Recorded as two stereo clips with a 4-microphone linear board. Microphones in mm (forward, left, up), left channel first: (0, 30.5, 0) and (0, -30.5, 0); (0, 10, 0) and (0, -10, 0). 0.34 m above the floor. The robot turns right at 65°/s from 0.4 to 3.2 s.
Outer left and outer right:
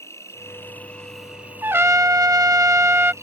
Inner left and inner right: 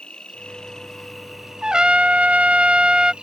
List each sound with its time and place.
0.0 s an insect: 130° left; by 3.2 s 50° right
1.6 s a trumpet: 135° right; by 3.1 s 40° right